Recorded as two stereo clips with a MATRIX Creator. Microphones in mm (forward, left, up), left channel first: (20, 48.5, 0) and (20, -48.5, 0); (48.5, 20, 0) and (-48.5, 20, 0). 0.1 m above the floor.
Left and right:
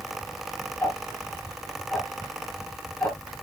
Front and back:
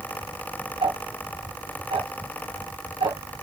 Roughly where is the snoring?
No snoring in this recording.